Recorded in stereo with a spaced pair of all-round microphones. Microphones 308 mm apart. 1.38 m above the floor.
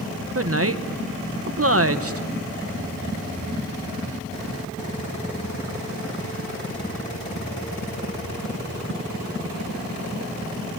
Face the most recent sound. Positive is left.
turn(degrees=-45)  # may be behind; listen again after turning